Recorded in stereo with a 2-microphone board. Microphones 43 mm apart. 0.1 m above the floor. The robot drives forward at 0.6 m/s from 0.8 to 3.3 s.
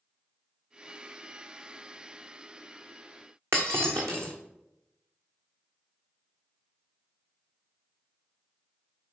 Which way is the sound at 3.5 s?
80° right.